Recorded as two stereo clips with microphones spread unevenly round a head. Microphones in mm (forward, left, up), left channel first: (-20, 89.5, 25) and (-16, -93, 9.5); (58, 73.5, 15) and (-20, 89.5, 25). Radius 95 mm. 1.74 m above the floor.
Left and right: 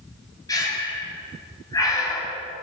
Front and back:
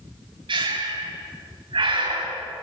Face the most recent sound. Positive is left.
turn(degrees=160)